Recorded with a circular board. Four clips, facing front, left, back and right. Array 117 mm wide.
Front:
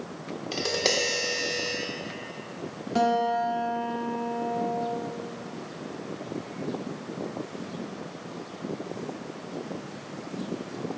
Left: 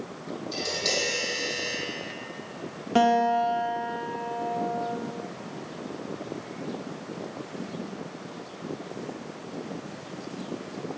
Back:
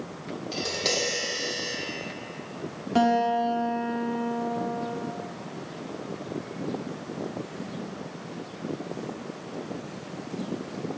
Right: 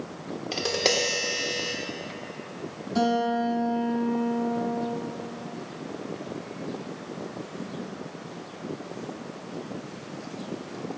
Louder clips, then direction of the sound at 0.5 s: Right 6 dB, front 3 dB; 65° right.